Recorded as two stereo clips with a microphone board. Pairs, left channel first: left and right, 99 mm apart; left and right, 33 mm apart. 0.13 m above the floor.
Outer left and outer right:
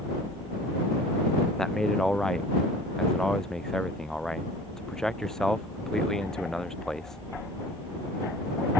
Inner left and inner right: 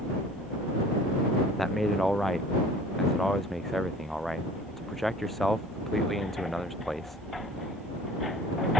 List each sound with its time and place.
1.6 s a man speaking: 5° left (ahead or behind)